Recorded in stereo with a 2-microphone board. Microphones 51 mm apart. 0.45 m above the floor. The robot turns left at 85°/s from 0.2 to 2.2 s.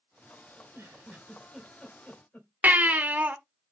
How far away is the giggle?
About 2.0 m.